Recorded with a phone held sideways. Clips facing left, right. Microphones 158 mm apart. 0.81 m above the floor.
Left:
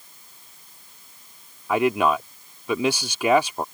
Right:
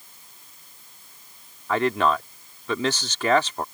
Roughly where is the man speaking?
Centre.